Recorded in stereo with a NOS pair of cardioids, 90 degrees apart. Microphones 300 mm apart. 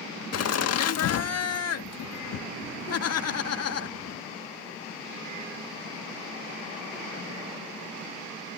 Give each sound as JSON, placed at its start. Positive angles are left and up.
{"t": 0.3, "sound": "laughter", "azimuth_deg": 60}